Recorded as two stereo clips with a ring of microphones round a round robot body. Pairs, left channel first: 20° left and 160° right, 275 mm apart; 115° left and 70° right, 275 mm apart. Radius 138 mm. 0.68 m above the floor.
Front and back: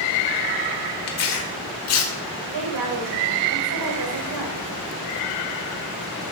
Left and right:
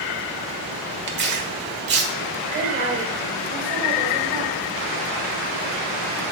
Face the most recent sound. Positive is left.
turn(degrees=-135)